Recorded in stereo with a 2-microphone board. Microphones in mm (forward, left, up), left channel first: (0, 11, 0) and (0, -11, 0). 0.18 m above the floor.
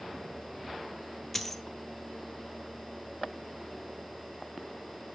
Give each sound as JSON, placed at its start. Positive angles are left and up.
{"t": 1.3, "sound": "a dropped coin", "side_deg": 10, "distance_m": 0.7}